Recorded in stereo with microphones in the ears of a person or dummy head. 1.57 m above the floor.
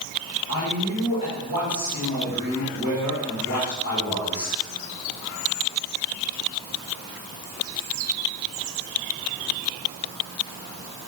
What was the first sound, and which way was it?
A man speaking, 20° right (ahead or behind).